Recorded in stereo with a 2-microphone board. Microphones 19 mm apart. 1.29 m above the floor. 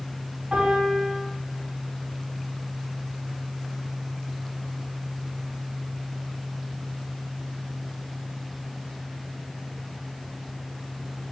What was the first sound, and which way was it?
A piano, 85° right.